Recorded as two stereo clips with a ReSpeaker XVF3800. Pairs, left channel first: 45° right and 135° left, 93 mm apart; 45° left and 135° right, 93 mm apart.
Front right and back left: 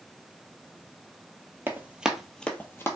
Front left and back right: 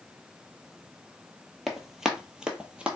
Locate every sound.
1.7 s running footsteps: 140° left, 0.7 m; by 3.0 s 70° right, 0.8 m